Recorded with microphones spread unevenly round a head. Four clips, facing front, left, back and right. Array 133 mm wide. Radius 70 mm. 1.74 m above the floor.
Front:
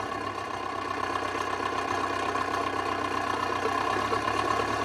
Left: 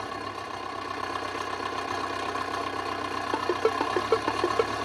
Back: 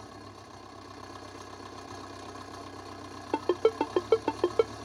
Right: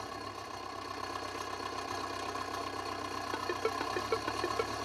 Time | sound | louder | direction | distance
0.0 | an engine running | left 8 dB, front 14 dB | 30° left | ?
3.3 | a ringtone | left 10 dB, back 1 dB | 145° left | ?